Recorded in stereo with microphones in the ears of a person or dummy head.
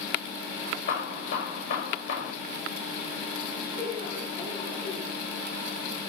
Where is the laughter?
25° left (ahead or behind), 8.5 m.